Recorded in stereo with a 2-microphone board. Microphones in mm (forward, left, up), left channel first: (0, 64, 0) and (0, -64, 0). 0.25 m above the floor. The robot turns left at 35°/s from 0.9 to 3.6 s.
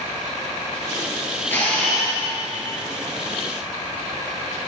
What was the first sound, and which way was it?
A camera shutter, 15° left (ahead or behind).